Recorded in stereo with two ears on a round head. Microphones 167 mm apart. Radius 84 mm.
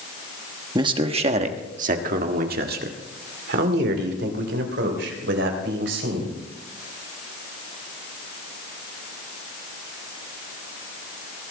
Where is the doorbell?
No doorbell in this recording.